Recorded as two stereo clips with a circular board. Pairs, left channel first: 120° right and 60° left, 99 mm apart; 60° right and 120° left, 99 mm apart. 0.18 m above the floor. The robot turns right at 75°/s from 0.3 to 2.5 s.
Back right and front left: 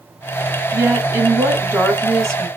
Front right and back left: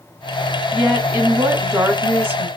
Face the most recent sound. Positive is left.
turn(degrees=175)